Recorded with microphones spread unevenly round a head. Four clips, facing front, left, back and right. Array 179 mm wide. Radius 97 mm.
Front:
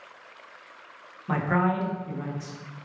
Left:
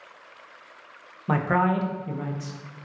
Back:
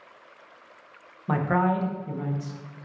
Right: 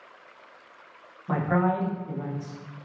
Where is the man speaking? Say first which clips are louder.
Left 2 dB, back 1 dB; 95° left, 0.6 m.